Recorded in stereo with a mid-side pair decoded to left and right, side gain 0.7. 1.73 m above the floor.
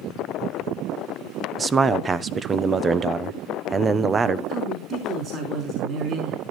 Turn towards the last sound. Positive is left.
turn(degrees=-45)